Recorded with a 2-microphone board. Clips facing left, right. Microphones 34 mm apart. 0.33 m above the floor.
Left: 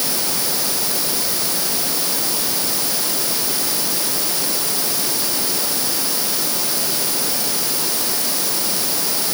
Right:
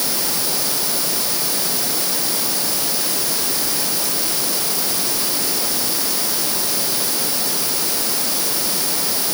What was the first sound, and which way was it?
Only background noise.